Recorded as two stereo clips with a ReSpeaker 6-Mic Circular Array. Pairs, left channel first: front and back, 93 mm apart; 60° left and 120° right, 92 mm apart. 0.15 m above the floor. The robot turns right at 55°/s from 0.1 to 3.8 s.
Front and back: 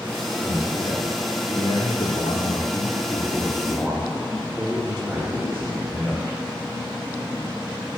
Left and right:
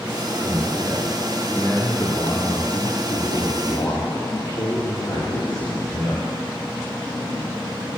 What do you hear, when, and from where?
0.4 s a man speaking: 90° right, 8 m; by 6.3 s 100° left, 8 m